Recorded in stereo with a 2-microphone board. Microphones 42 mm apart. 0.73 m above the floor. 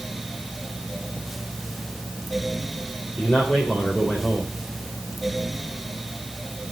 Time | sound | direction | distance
3.2 | a man speaking | 30° left (ahead or behind) | 2.5 m